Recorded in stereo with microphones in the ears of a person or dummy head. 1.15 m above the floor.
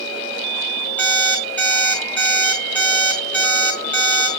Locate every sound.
1.0 s an alarm clock: 5° left (ahead or behind), 4 m